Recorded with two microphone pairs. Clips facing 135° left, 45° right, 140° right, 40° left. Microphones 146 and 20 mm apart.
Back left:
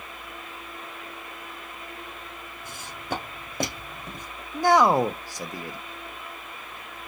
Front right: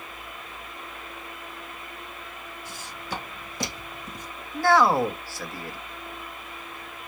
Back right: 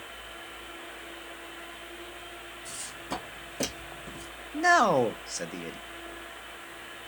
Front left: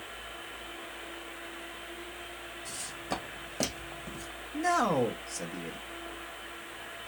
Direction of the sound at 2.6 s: 115° left.